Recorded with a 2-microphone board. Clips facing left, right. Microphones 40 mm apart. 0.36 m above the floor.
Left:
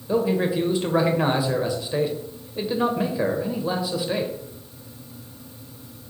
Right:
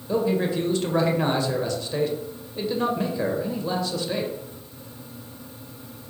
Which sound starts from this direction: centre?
A man speaking, at 0.1 s.